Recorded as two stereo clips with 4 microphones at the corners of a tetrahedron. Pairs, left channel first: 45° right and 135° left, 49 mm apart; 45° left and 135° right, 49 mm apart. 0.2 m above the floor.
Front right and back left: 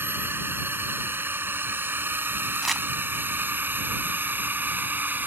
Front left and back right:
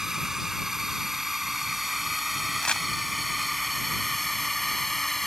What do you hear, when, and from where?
0.0 s a drone: 145° left; by 5.3 s 130° left
2.6 s crumpling: 50° left